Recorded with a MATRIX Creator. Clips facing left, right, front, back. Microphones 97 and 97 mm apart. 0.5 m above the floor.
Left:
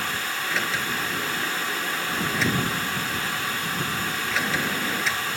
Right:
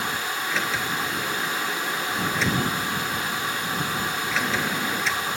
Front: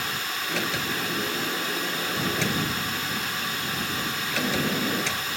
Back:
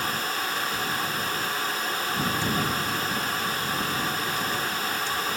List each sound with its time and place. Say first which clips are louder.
0.5 s a sliding door: even, even; straight ahead